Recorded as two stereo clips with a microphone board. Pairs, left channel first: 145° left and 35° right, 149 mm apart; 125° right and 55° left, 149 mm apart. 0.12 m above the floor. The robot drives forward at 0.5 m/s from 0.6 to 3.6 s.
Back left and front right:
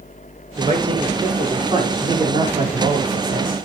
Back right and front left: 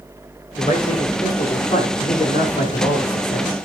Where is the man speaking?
80° right, 7 m; by 3.5 s 90° right, 7 m.